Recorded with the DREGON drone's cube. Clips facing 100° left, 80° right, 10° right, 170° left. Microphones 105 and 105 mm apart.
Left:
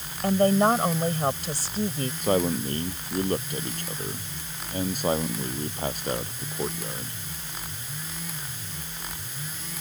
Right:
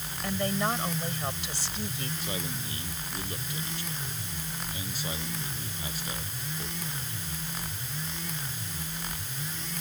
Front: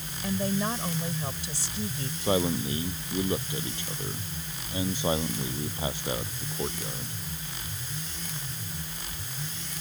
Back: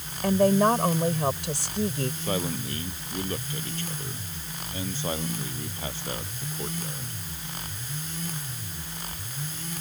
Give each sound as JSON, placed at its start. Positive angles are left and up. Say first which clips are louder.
{"t": 0.2, "sound": "a woman speaking", "louder": "left 10 dB, back 9 dB", "azimuth_deg": 145}
{"t": 2.2, "sound": "a man speaking", "louder": "left 12 dB, front 8 dB", "azimuth_deg": 65}